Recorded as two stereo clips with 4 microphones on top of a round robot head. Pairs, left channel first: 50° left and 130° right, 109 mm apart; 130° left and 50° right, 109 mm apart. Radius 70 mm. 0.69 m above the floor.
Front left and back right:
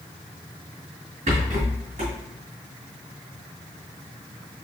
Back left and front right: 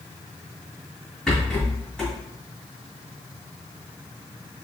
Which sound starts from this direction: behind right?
A rattle, at 1.3 s.